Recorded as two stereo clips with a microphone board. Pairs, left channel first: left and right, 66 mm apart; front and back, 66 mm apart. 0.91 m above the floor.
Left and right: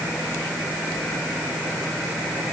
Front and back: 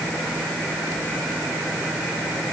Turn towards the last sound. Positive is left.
No sound to turn to.